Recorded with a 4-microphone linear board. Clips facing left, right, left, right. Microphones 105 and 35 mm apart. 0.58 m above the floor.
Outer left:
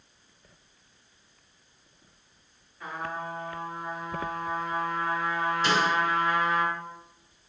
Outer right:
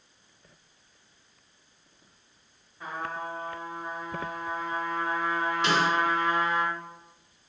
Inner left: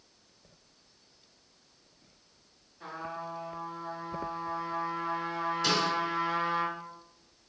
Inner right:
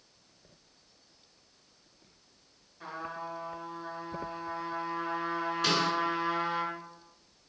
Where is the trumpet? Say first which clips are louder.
Even, even; 20° right (ahead or behind), 1.6 m.